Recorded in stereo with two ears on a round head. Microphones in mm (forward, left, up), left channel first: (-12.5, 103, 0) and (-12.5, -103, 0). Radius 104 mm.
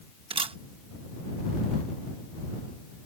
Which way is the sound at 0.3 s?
25° right (ahead or behind).